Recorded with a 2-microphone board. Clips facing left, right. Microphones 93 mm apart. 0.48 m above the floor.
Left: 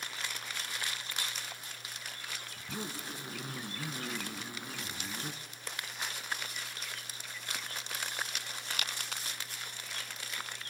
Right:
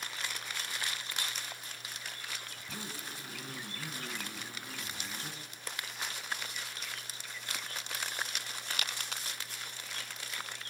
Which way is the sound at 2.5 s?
20° left (ahead or behind).